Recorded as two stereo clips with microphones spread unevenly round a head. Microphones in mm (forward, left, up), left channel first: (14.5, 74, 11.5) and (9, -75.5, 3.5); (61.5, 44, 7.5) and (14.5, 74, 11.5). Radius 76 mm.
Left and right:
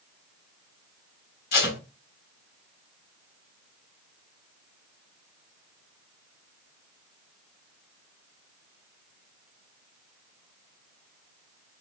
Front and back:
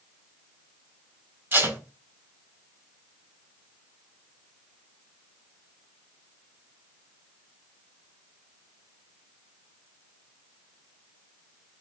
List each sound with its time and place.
1.5 s tape being pulled: 105° left, 3.5 m